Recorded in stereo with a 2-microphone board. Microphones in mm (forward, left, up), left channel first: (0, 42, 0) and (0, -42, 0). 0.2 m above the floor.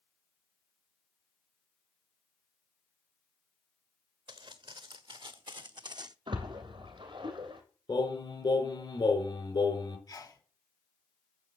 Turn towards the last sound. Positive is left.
turn(degrees=50)  # may be behind; listen again after turning